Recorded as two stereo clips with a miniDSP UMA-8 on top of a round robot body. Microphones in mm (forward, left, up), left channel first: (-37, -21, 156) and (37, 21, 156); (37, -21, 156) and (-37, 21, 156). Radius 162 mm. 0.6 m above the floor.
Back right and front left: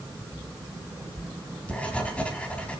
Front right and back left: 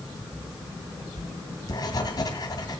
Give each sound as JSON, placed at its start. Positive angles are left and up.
{"t": 1.2, "sound": "writing", "azimuth_deg": -75, "distance_m": 2.0}